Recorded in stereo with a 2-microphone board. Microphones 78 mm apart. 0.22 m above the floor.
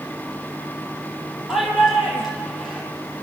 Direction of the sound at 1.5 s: 5° right (ahead or behind).